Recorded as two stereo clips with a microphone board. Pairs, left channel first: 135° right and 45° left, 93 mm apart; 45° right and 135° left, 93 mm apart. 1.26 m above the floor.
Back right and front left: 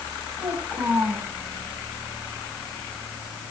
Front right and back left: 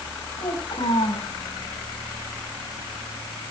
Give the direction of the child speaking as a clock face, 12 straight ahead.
1 o'clock.